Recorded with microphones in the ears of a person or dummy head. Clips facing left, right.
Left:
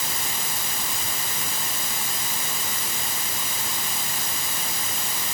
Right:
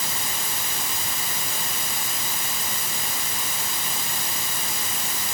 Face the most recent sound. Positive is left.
No sound to turn to.